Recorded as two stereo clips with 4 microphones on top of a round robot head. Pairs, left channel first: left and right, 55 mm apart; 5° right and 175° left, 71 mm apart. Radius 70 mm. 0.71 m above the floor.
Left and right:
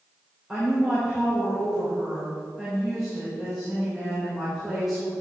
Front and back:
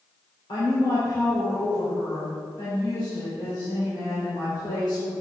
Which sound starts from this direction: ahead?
A woman speaking, at 0.5 s.